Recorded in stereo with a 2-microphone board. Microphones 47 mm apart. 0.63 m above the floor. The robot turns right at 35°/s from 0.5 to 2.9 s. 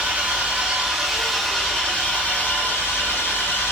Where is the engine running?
25° right, 1.3 m; by 3.7 s 60° left, 1.3 m.